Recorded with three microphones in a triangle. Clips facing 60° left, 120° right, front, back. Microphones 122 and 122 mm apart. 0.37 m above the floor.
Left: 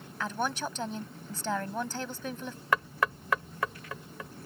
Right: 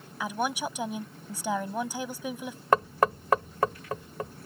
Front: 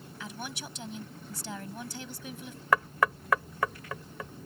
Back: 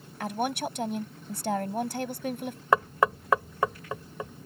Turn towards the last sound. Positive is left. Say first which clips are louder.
# right 6 dB, back 3 dB
turn(degrees=-130)